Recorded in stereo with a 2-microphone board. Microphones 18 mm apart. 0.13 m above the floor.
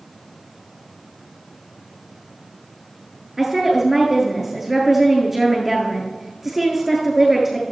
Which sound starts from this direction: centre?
A woman speaking, at 3.4 s.